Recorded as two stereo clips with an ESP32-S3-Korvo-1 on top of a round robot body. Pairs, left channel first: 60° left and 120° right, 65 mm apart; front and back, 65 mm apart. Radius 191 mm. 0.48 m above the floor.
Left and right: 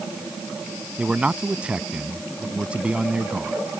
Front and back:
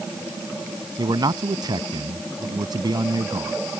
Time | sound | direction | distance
1.0 | a man speaking | 165° left | ?